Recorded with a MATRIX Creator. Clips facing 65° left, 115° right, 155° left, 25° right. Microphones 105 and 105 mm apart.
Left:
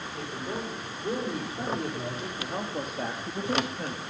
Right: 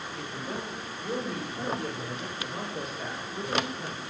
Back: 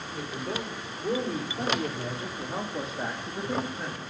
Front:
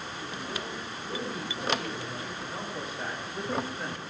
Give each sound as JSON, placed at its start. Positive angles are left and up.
{"t": 0.1, "sound": "a woman speaking", "azimuth_deg": 140, "distance_m": 5.0}